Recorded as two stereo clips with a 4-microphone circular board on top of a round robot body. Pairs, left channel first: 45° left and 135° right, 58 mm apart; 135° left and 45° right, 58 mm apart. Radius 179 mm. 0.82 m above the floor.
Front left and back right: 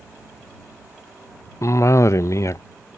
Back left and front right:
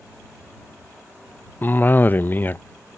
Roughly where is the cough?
Left.